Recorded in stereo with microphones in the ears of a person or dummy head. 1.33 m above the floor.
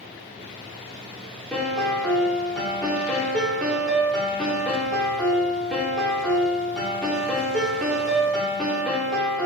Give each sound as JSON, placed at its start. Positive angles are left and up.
{"t": 1.5, "sound": "a piano", "side_deg": 5, "distance_m": 3.0}